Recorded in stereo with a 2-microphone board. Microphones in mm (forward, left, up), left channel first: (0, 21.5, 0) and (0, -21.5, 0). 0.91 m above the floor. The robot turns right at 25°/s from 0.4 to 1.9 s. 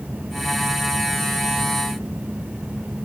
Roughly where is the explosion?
No explosion in this recording.